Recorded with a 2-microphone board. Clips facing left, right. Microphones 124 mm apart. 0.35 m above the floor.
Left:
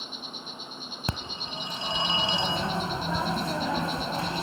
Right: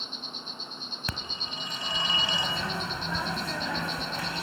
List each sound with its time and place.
0.0 s an insect: 10° left (ahead or behind), 1.3 m
1.1 s a phone ringing: 30° left (ahead or behind), 1.1 m